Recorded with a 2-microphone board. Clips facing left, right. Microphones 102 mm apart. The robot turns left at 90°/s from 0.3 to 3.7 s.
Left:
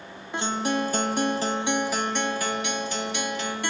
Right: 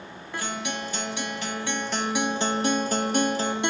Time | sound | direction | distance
0.3 | a guitar | 150° left | 0.9 m